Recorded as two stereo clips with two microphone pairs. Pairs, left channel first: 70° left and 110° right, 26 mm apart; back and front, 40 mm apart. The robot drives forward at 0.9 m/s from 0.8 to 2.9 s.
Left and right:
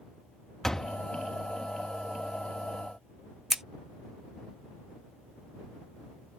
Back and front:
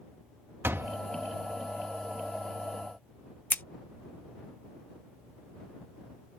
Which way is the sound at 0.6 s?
Straight ahead.